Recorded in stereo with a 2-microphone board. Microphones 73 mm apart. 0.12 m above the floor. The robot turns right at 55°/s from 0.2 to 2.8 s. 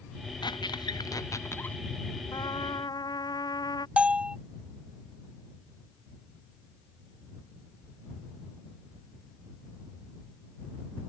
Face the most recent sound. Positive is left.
turn(degrees=-15)  # may be behind; listen again after turning